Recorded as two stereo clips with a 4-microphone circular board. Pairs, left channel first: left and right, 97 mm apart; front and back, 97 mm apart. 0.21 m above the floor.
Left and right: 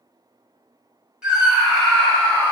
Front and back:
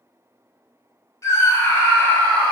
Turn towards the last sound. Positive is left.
turn(degrees=55)